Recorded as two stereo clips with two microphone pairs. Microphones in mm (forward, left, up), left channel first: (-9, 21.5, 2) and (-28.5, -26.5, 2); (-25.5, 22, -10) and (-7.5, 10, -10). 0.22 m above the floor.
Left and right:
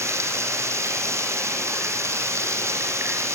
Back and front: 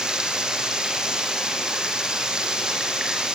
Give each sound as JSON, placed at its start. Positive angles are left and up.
{"t": 0.0, "sound": "running water", "azimuth_deg": -90, "distance_m": 5.0}